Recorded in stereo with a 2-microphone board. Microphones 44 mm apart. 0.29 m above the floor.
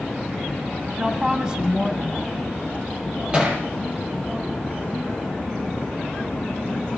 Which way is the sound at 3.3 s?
20° right (ahead or behind).